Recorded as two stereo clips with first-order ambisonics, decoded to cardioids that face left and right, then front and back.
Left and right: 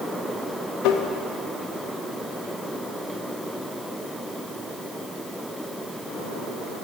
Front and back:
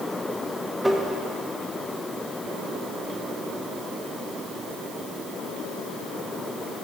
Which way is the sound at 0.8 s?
95° left.